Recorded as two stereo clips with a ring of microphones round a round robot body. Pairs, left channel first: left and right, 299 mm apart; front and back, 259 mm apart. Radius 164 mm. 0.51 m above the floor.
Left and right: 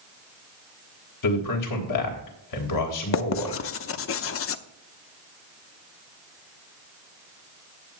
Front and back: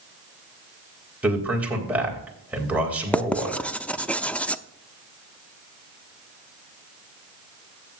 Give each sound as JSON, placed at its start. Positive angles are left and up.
{"t": 1.2, "sound": "a man speaking", "azimuth_deg": 95, "distance_m": 3.5}
{"t": 3.1, "sound": "writing", "azimuth_deg": 85, "distance_m": 0.7}